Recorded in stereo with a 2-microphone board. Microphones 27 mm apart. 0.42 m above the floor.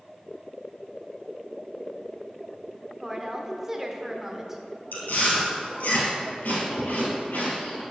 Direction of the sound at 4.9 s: 80° left.